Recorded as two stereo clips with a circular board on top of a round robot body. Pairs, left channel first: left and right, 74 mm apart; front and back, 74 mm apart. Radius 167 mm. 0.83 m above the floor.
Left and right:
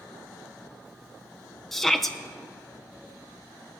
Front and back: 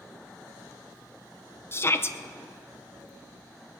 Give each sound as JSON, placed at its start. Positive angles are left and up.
{"t": 1.7, "sound": "a shout", "azimuth_deg": 5, "distance_m": 0.8}